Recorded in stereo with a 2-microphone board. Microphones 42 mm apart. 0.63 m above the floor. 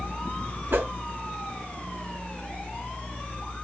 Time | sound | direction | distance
0.7 | a whoosh | 70° right (ahead or behind) | 2 m